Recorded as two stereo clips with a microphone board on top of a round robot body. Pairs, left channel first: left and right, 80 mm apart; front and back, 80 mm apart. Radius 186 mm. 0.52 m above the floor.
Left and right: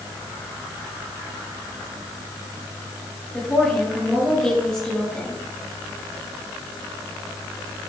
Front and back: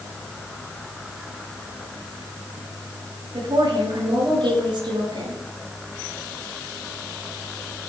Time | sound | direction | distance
3.3 | a woman speaking | 170° left | 9 m